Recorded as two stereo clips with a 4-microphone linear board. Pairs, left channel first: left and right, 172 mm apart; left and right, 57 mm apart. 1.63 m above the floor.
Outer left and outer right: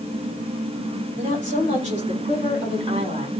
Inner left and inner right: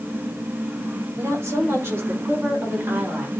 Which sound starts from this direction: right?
A woman speaking, at 1.2 s.